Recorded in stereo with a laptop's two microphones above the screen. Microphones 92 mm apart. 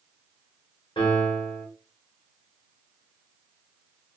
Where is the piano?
60° left (ahead or behind), 1.4 m.